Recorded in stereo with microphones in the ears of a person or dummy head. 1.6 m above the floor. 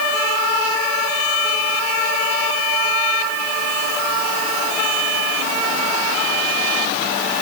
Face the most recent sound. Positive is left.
No sound to turn to.